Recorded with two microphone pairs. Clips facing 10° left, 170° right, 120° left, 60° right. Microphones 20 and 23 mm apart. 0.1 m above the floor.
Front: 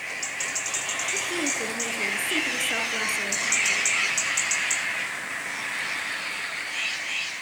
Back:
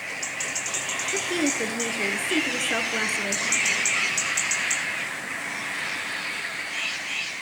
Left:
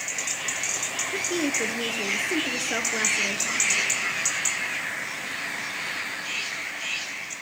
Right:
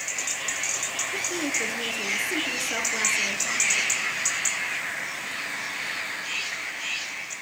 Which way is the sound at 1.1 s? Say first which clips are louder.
Back 5 dB, left 3 dB; 155° left.